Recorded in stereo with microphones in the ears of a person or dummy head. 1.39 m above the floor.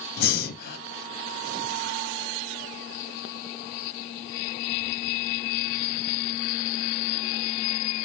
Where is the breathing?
65° left (ahead or behind), 1.6 m.